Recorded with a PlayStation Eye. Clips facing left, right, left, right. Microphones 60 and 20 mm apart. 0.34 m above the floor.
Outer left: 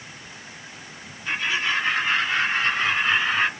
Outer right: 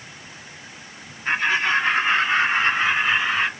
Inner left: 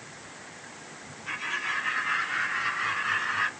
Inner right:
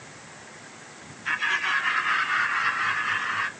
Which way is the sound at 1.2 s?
45° right (ahead or behind).